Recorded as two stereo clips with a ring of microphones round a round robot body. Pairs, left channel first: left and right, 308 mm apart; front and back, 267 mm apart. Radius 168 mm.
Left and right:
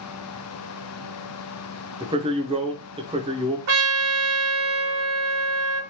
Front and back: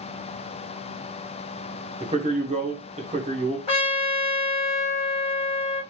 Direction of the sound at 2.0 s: 145° right.